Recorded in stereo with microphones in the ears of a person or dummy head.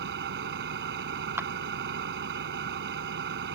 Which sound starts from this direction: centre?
A clap, at 1.4 s.